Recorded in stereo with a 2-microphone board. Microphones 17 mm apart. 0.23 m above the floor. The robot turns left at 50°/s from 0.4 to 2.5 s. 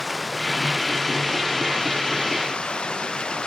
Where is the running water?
Straight behind; by 3.5 s 75° left.